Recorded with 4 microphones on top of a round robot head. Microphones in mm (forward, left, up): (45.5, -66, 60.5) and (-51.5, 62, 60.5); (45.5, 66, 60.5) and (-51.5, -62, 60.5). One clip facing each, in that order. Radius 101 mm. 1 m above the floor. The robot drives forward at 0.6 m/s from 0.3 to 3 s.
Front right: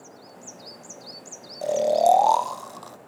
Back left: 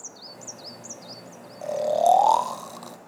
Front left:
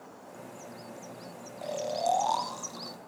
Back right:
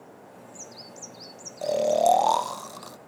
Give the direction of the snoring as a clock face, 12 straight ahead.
3 o'clock.